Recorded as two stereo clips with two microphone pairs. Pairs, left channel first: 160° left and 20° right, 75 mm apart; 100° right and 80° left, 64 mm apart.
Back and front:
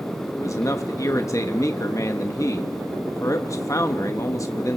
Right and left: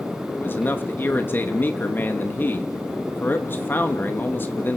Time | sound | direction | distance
0.3 | a man speaking | 155° right | 1.3 m